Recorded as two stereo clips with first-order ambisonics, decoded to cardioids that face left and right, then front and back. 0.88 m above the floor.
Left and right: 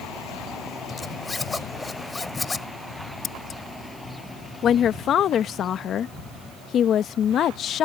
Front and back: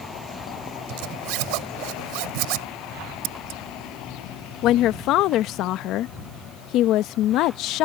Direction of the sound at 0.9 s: 170° left.